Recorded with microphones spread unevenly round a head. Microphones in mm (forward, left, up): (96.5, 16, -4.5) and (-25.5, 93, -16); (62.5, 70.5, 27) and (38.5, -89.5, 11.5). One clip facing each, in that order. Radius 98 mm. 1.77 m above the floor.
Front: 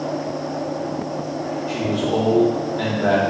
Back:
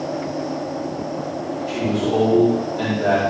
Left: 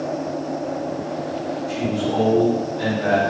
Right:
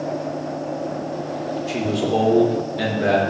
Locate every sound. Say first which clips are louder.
1.7 s a man speaking: back 2 dB, right 2 dB; 125° right, 4.5 m